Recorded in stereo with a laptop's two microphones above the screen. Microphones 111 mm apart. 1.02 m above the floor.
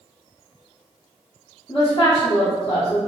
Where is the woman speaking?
50° left (ahead or behind), 1.6 m.